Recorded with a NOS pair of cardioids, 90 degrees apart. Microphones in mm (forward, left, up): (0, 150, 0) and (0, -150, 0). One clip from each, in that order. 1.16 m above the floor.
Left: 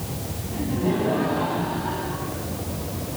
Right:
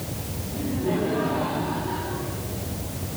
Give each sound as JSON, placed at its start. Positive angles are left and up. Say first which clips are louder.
{"t": 0.5, "sound": "laughter", "louder": "left 1 dB", "azimuth_deg": 60, "distance_m": 7.5}